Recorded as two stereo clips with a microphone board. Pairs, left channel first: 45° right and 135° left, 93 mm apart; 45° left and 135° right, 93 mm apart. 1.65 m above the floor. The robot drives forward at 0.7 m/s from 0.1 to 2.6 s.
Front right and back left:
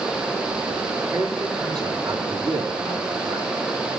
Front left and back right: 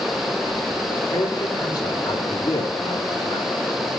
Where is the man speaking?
85° left, 4 m; by 3.5 s 100° left, 4 m.